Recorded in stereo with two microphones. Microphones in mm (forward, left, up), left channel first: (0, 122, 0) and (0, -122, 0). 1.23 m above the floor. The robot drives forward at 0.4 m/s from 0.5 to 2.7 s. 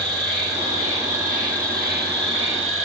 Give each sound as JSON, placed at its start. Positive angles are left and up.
{"t": 0.0, "sound": "an insect", "side_deg": -25, "distance_m": 1.3}